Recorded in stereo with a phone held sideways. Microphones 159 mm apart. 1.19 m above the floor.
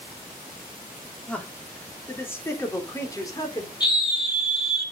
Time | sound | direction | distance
1.3 | a man speaking | 5° left (ahead or behind) | 3 m
3.8 | a scream | 30° left (ahead or behind) | 5 m